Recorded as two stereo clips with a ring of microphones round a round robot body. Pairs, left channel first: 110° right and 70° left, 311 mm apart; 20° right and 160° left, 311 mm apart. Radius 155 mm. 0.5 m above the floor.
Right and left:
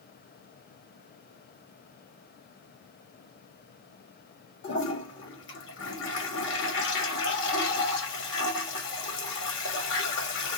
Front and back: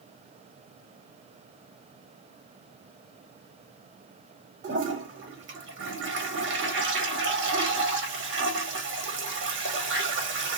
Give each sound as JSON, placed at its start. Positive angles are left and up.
{"t": 4.6, "sound": "a toilet flushing", "azimuth_deg": -155, "distance_m": 1.5}